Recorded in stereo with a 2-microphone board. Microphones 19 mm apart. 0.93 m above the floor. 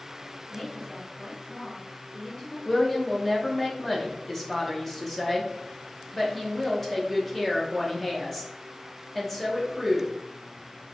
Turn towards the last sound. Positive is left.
turn(degrees=10)  # may be behind; listen again after turning